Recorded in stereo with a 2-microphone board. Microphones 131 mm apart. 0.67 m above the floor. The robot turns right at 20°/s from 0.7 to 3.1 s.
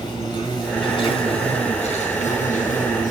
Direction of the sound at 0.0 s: 35° left.